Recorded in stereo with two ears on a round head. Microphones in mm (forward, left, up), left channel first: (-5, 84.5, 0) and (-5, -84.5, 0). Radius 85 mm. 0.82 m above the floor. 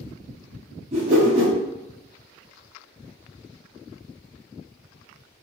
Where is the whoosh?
30° right (ahead or behind), 0.8 m.